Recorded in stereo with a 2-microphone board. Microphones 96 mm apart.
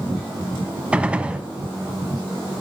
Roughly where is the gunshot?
Centre.